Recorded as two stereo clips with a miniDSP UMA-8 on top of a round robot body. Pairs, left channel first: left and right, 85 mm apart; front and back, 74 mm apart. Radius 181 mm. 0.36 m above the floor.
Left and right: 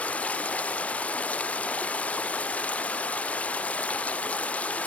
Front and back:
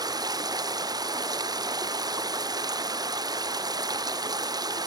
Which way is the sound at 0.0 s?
165° left.